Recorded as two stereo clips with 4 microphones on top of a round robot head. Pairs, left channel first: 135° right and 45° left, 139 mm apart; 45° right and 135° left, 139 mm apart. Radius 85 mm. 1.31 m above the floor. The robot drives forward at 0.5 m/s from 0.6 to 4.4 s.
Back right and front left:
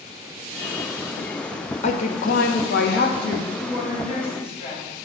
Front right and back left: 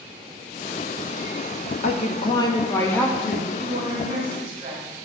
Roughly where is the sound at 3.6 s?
Behind.